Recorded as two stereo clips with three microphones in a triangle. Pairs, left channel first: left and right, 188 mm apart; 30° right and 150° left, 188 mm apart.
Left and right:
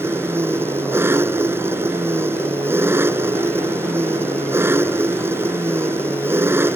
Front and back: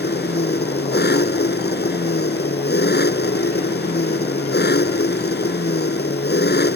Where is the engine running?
15° right.